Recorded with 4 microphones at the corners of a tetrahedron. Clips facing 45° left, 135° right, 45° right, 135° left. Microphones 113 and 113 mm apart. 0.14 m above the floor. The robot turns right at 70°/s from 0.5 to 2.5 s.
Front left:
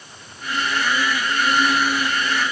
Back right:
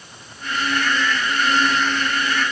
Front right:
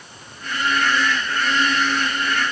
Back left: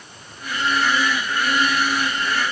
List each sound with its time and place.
Only background noise.